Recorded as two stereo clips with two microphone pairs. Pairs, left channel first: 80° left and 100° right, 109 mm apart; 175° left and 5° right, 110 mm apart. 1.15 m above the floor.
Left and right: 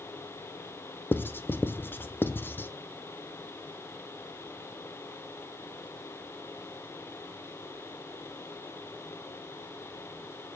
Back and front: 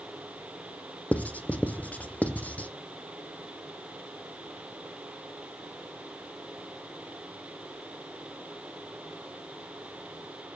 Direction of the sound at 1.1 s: 120° left.